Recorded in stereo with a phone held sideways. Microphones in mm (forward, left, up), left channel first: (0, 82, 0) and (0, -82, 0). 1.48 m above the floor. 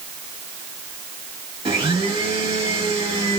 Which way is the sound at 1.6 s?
35° right (ahead or behind).